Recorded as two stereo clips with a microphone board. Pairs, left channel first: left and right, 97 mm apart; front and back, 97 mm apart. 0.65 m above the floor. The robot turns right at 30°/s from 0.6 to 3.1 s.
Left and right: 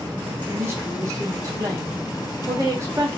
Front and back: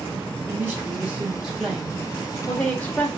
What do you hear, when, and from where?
0.5 s a woman speaking: 130° right, 0.8 m; by 3.1 s 55° right, 0.8 m